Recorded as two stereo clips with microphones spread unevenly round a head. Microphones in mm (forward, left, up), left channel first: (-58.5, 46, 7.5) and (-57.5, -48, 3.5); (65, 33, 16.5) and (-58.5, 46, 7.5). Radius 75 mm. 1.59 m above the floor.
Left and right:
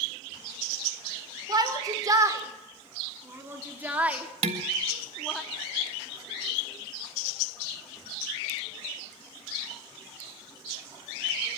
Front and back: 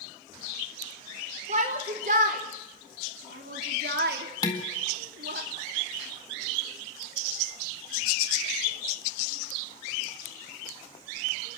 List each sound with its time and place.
1.5 s a shout: 140° right, 5.5 m; by 5.4 s 170° left, 3.5 m
4.4 s dishes clattering: 70° right, 1.8 m